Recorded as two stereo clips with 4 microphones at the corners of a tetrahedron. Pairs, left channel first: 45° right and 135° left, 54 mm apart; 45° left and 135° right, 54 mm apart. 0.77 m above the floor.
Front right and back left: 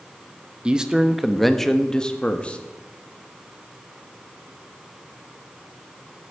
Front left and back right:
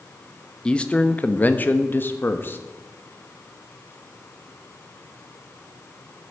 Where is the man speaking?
90° left, 1.0 m; by 2.6 s 15° left, 1.5 m.